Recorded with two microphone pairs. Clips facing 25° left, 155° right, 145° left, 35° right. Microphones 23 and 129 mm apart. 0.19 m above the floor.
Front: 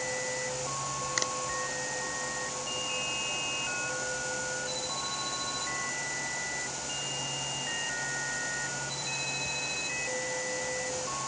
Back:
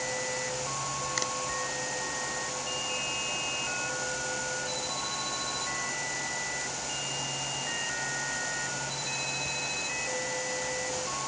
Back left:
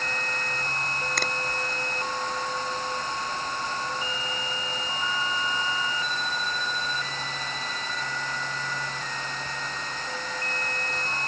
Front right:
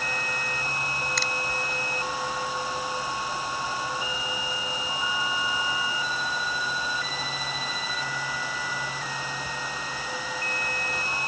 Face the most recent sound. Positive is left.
turn(degrees=105)